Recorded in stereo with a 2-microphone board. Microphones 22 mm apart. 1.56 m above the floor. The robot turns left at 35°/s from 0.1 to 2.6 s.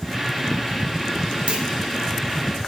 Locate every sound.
1.5 s a clunk: 60° right (ahead or behind), 1.1 m; by 1.7 s 50° right (ahead or behind), 1.1 m